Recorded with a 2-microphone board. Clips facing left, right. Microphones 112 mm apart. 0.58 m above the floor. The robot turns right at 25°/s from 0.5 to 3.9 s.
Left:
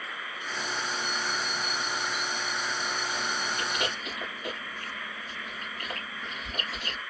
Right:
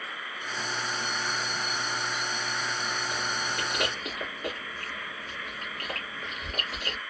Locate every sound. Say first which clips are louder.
3.1 s chewing: even; 70° right (ahead or behind), 1.8 m; by 7.0 s 55° right (ahead or behind), 1.8 m